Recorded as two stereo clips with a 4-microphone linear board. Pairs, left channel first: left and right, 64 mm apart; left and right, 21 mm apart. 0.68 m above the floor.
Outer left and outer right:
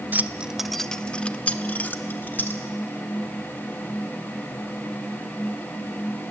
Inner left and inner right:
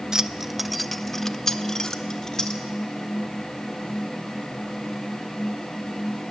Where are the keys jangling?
30° right (ahead or behind), 0.5 m; by 2.6 s 35° left (ahead or behind), 1.5 m.